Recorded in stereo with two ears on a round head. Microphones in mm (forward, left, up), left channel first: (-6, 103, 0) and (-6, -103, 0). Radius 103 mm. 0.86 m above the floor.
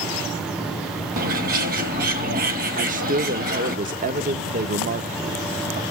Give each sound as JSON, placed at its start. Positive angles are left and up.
{"t": 1.2, "sound": "a bird", "side_deg": -40, "distance_m": 1.4}
{"t": 2.8, "sound": "a man speaking", "side_deg": -35, "distance_m": 0.5}